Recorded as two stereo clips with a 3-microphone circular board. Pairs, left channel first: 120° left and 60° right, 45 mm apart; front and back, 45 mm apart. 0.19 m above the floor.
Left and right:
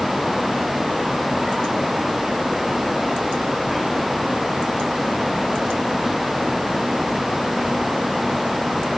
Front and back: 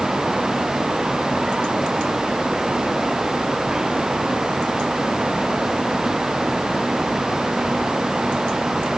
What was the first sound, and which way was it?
Only background noise.